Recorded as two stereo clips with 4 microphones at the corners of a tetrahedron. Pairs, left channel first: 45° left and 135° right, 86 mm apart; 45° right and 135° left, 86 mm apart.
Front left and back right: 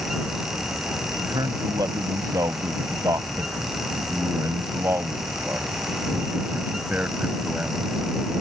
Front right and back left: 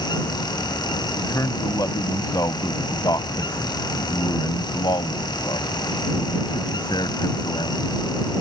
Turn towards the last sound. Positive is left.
turn(degrees=-60)